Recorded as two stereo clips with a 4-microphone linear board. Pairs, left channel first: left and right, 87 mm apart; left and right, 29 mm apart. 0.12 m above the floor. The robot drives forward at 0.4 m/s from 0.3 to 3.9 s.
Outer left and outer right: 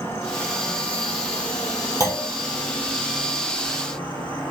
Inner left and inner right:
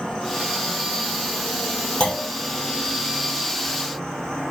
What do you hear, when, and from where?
0.0 s an insect: 25° left (ahead or behind), 2.5 m; by 4.5 s 15° left (ahead or behind), 4 m
2.0 s a clunk: 35° left (ahead or behind), 4 m